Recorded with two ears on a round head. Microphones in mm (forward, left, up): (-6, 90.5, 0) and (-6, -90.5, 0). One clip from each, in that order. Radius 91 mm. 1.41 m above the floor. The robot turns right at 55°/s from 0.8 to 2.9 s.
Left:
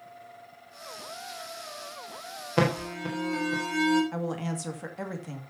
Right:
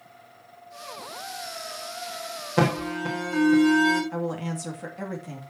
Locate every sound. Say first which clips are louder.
2.6 s an alarm: right 2 dB; 15° left (ahead or behind), 3.5 m; by 4.0 s 5° right (ahead or behind), 3.5 m
4.1 s a woman speaking: right 3 dB; 15° left (ahead or behind), 2.5 m